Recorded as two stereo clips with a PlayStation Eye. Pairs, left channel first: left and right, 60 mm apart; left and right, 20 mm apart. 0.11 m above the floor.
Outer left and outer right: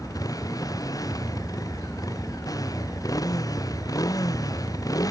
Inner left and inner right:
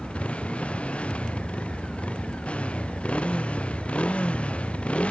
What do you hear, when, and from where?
0.0 s a motorcycle: 75° left (ahead or behind)